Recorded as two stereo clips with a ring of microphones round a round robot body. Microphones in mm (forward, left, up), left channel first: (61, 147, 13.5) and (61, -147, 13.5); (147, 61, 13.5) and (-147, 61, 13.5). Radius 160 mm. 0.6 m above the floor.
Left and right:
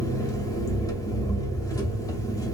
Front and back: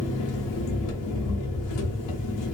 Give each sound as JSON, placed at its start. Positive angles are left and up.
{"t": 0.0, "sound": "an engine running", "azimuth_deg": 10, "distance_m": 0.7}